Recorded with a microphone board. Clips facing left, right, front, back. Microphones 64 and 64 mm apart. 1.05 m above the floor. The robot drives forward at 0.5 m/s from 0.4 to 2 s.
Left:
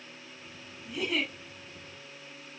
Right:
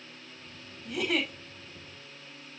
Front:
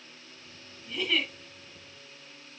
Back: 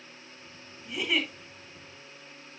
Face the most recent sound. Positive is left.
turn(degrees=-110)